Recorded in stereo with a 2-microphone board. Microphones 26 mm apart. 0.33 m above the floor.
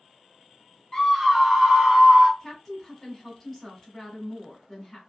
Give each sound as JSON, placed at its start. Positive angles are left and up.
{"t": 0.9, "sound": "a scream", "side_deg": 25, "distance_m": 1.0}
{"t": 2.4, "sound": "a woman speaking", "side_deg": -5, "distance_m": 1.1}